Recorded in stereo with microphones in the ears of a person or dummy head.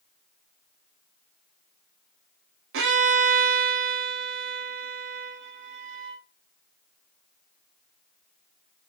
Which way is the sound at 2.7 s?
65° right (ahead or behind).